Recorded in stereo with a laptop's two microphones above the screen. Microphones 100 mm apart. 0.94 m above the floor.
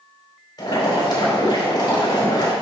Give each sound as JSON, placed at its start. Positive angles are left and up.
{"t": 0.6, "sound": "boiling", "side_deg": 40, "distance_m": 4.0}